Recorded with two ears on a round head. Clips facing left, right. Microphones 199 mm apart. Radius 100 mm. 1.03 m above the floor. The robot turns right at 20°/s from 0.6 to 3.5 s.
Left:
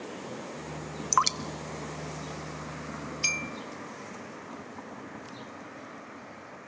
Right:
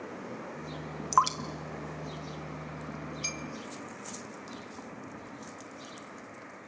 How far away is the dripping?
About 0.8 m.